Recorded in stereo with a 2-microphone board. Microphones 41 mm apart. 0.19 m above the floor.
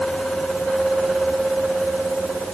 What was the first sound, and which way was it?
Only background noise.